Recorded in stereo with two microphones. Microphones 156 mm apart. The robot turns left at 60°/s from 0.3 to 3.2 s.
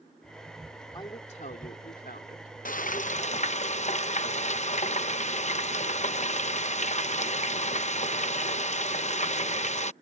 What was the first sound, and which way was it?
A woman speaking, 155° left.